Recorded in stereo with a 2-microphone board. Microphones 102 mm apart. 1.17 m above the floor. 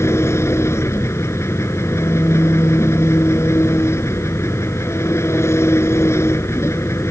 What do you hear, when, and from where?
0.0 s an engine running: 25° left (ahead or behind)